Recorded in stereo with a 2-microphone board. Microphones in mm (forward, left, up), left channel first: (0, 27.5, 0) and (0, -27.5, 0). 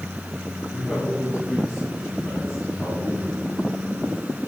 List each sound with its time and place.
0.7 s a man speaking: 5° right (ahead or behind), 2.5 m; by 3.4 s 10° left (ahead or behind), 4.5 m